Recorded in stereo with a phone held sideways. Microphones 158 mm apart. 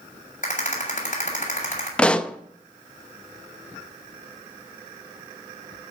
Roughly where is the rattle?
Left.